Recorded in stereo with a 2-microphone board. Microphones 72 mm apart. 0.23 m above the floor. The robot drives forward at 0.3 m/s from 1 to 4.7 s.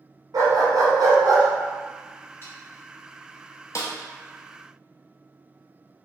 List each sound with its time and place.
0.3 s a dog barking: 65° right (ahead or behind), 1.0 m
2.4 s sawing: 35° left (ahead or behind), 1.4 m
3.8 s a snare drum: 45° left (ahead or behind), 0.7 m; by 3.9 s 50° left (ahead or behind), 0.7 m